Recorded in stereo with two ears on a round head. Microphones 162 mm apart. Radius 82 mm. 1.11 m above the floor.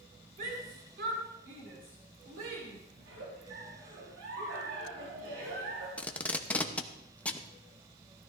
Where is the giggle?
80° right, 5 m.